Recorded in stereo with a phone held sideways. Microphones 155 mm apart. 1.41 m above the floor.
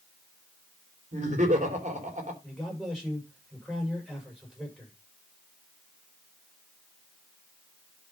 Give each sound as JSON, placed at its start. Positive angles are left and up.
{"t": 1.1, "sound": "laughter", "side_deg": -50, "distance_m": 3.5}
{"t": 2.4, "sound": "a man speaking", "side_deg": -5, "distance_m": 6.0}